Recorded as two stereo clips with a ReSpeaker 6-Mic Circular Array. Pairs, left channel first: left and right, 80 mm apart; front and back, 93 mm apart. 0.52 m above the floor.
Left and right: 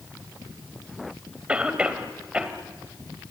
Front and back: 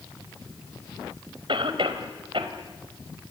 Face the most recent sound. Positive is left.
turn(degrees=-165)